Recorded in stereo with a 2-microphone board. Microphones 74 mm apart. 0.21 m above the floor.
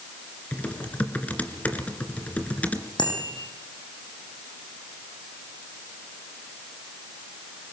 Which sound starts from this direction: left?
A bicycle bell, at 3.0 s.